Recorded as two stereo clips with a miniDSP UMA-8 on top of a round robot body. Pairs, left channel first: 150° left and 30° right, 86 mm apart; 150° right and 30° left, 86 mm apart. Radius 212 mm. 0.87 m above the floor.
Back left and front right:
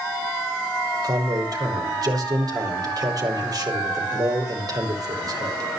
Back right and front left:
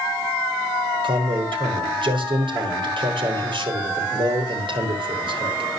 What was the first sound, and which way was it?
A man speaking, 10° left.